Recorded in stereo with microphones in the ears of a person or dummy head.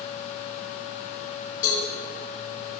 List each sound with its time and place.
1.6 s a cowbell: 60° left (ahead or behind), 4.5 m